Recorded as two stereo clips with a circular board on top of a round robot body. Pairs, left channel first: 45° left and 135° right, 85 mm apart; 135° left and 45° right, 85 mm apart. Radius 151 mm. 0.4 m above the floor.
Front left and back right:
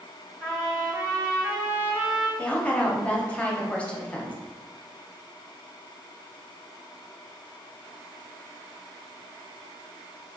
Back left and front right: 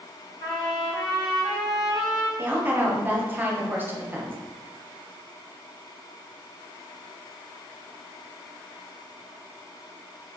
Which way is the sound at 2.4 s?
10° right.